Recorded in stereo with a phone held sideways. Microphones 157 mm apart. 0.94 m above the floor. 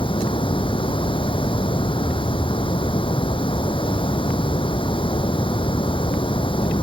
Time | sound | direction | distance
0.0 | running water | 35° left (ahead or behind) | ?